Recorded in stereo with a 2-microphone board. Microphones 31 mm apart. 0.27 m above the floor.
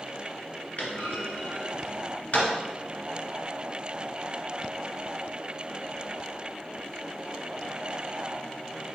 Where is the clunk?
60° left (ahead or behind), 1.2 m.